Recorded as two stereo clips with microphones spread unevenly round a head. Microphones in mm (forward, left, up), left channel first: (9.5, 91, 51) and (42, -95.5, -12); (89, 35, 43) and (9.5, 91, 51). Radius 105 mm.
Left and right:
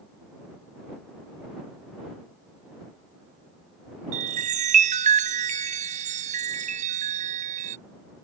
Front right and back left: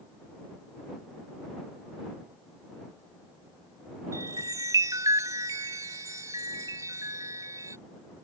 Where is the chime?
145° right.